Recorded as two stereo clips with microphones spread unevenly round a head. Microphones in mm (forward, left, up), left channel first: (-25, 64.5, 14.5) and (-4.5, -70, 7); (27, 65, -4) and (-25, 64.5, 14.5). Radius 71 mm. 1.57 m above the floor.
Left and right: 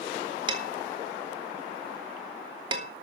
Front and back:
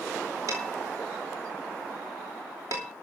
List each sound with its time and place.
0.5 s dishes clattering: 135° right, 2.5 m